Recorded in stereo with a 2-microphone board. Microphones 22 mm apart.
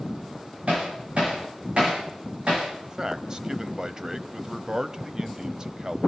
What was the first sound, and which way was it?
Hammering, 65° right (ahead or behind).